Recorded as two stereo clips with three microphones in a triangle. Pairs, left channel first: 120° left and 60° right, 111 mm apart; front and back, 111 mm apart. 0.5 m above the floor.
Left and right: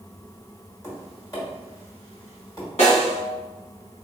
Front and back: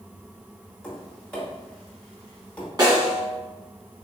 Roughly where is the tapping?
Left.